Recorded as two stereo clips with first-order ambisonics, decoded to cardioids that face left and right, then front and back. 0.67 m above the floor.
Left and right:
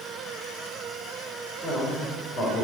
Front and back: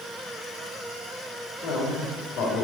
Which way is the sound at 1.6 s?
35° left.